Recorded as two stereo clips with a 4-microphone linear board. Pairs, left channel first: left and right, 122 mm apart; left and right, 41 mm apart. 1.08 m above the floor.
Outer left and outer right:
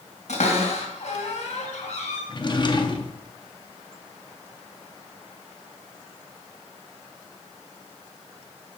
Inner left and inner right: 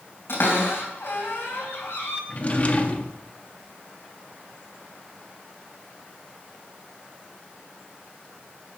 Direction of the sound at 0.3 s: 70° left (ahead or behind).